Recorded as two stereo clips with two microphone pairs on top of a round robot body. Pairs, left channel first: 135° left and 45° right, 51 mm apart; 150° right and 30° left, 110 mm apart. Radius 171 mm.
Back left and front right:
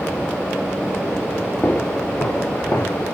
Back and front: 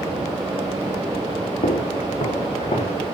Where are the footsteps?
175° right, 3 m; by 3.0 s 170° left, 3.5 m.